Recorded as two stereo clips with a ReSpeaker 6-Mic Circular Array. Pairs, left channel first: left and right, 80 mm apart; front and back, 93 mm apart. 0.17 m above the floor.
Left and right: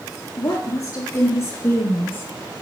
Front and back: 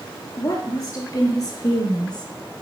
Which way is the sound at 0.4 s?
50° left.